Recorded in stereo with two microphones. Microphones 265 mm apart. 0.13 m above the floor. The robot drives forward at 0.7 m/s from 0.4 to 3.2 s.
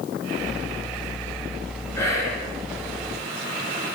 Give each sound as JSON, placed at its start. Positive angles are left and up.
{"t": 1.9, "sound": "whispering", "side_deg": 10, "distance_m": 1.5}